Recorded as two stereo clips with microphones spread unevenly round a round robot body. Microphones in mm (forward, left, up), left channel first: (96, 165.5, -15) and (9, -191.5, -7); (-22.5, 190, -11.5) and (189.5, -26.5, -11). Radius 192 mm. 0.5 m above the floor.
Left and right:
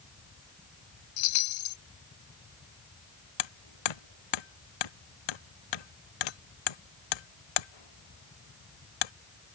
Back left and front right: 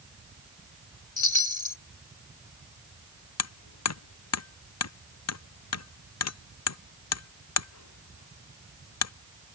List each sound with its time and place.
1.2 s a chime: 90° left
3.4 s hammering: 100° left